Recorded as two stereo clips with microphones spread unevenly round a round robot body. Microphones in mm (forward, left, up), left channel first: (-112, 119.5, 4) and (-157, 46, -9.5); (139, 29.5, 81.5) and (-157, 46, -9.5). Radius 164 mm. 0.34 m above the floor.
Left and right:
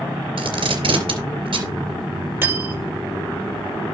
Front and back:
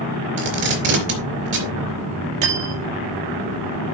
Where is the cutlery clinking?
175° left, 5.5 m.